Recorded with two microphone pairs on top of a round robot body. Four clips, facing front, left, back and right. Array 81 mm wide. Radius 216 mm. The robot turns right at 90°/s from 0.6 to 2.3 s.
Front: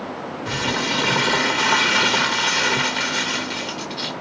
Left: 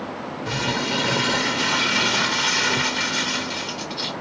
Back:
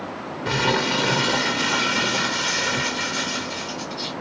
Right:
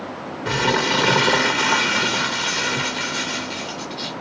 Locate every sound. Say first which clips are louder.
0.5 s crumpling: right 6 dB, back 3 dB; 135° right, 0.7 m; by 4.1 s 20° left, 0.7 m